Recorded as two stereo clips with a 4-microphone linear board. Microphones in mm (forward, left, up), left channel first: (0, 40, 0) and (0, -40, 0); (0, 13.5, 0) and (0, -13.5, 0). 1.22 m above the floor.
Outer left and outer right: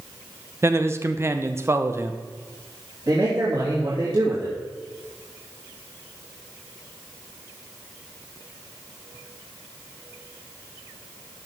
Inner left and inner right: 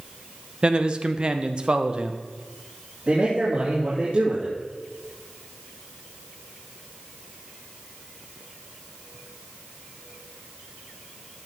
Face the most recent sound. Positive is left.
turn(degrees=-50)  # may be behind; listen again after turning